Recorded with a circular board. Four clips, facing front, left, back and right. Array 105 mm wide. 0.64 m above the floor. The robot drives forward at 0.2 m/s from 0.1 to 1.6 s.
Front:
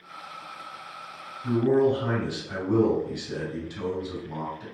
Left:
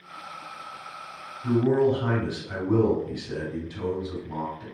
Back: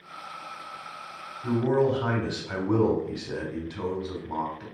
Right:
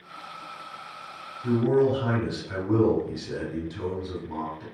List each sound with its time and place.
1.4 s a man speaking: 175° right, 2 m